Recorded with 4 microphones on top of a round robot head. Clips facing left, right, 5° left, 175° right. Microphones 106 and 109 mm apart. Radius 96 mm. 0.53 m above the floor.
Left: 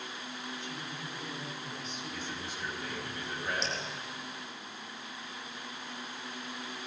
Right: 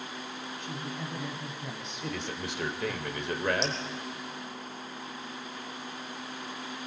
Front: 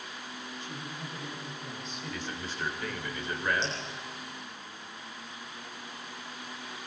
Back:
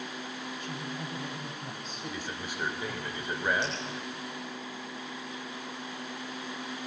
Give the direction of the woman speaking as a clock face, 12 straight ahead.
4 o'clock.